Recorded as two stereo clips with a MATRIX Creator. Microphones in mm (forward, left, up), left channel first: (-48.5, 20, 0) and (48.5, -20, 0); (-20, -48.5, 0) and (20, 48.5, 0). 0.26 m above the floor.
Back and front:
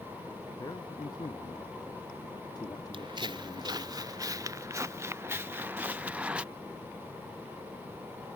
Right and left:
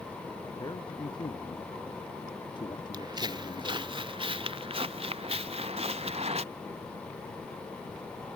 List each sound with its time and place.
0.6 s a man speaking: 155° right; by 3.9 s 150° right
2.9 s footsteps: 15° left; by 6.4 s 55° left